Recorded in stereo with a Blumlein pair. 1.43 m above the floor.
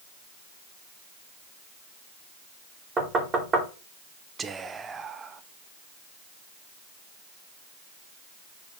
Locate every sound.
3.0 s knocking: 20° right, 2 m
4.4 s whispering: 15° right, 0.7 m